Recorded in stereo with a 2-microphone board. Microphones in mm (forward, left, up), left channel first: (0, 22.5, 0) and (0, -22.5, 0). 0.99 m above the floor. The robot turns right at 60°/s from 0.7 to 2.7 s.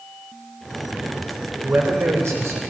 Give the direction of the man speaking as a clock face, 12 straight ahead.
5 o'clock.